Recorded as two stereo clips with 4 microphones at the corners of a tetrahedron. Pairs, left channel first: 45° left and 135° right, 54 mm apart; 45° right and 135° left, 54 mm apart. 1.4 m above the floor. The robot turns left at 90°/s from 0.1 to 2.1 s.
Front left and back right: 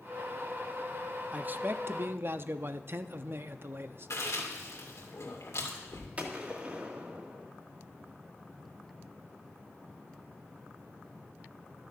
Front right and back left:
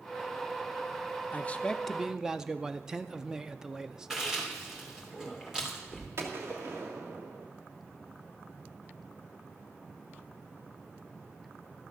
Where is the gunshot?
165° left, 1.7 m.